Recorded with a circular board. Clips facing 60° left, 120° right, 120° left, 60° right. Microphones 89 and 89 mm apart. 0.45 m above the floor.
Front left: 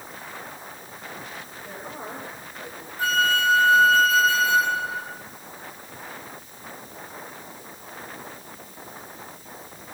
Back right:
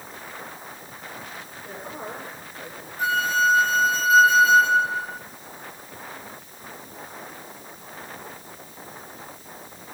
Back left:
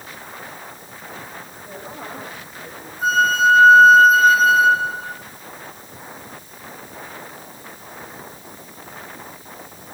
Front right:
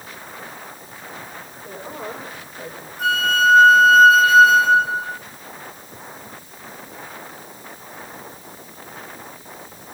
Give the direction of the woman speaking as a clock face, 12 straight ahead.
1 o'clock.